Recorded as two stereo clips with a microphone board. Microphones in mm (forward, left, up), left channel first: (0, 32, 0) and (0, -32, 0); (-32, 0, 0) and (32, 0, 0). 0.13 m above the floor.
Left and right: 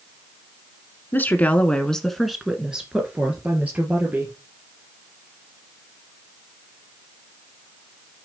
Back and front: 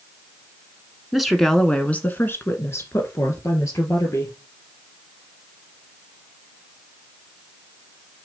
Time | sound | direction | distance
1.1 | a woman speaking | 80° left | 1.4 m